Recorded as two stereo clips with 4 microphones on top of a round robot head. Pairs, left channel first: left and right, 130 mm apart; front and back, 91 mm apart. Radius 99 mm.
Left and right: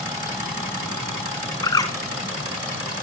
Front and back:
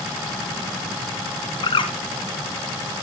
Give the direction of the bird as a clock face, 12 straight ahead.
11 o'clock.